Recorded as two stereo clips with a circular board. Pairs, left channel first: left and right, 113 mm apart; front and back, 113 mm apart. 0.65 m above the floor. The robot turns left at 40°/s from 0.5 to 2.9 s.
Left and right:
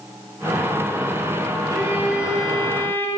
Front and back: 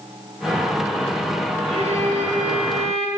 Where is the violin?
150° right, 1.3 m; by 3.1 s 160° left, 1.3 m.